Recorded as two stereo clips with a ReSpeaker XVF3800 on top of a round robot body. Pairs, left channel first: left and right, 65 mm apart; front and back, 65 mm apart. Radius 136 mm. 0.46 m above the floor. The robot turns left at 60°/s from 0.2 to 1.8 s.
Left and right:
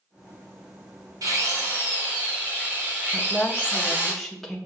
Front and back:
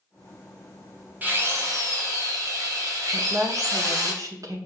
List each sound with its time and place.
1.2 s a drill: 120° right, 3 m; by 4.1 s 155° right, 3 m
3.1 s a woman speaking: 175° left, 2.0 m